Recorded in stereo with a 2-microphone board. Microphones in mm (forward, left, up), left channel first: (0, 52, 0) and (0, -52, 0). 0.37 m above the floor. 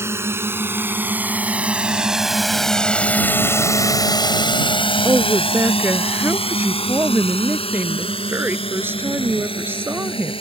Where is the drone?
25° right (ahead or behind); by 10.4 s 55° left (ahead or behind).